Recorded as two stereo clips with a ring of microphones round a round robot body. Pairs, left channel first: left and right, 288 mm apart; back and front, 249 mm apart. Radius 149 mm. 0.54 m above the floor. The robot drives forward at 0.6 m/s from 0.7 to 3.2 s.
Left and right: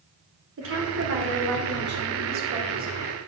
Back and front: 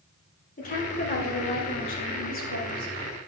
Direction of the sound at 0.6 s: 125° right.